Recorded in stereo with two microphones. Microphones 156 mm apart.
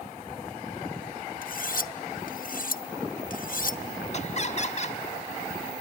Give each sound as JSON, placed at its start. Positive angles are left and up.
{"t": 1.4, "sound": "cutlery clinking", "side_deg": 65, "distance_m": 0.5}
{"t": 4.1, "sound": "laughter", "side_deg": 45, "distance_m": 1.4}